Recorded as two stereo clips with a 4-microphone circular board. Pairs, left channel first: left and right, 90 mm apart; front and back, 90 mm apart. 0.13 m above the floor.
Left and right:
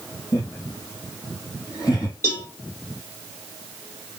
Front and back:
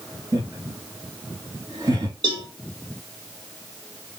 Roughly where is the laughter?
Behind left.